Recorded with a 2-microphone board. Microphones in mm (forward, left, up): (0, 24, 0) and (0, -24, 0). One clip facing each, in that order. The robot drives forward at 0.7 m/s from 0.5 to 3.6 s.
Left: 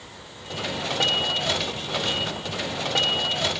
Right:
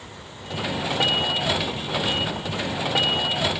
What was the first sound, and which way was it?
Only background noise.